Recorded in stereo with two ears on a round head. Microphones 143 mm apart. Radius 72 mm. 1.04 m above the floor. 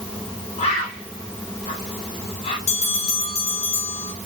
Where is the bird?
40° left (ahead or behind), 3.5 m.